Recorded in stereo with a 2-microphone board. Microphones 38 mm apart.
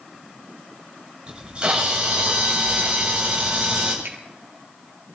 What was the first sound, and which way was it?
A camera shutter, 30° right (ahead or behind).